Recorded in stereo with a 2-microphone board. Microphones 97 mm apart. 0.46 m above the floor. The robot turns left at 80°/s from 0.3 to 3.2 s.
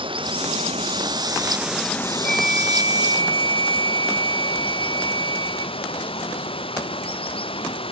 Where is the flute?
10° left; by 5.7 s 70° right.